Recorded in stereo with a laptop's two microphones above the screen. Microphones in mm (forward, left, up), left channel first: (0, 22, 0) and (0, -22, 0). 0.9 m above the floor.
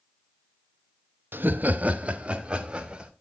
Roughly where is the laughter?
Right.